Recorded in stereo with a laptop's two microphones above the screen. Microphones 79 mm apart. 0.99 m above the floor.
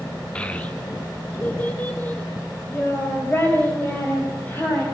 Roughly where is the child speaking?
Centre.